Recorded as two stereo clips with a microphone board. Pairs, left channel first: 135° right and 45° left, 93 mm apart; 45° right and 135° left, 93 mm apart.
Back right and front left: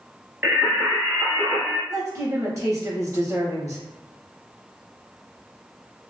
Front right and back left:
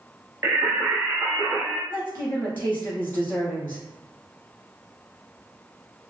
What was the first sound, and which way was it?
Singing, 100° left.